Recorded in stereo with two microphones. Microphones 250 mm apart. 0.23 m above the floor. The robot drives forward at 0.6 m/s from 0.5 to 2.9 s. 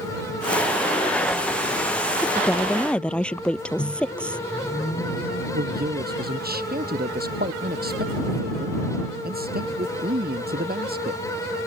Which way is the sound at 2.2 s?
5° left (ahead or behind).